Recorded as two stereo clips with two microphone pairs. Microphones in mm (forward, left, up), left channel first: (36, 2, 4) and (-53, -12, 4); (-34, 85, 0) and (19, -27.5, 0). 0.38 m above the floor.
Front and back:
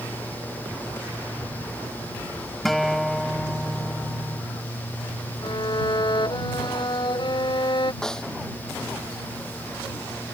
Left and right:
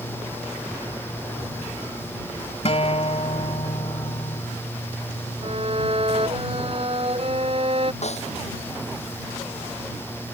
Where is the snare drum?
90° left.